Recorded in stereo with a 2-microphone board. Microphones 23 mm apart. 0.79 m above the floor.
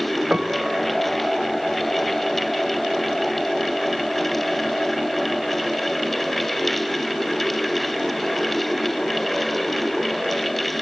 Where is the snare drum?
No snare drum in this recording.